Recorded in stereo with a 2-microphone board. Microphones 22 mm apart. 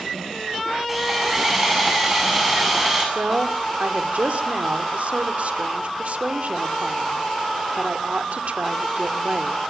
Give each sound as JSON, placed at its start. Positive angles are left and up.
{"t": 0.9, "sound": "sawing", "side_deg": -5, "distance_m": 8.5}
{"t": 3.1, "sound": "a woman speaking", "side_deg": -70, "distance_m": 2.0}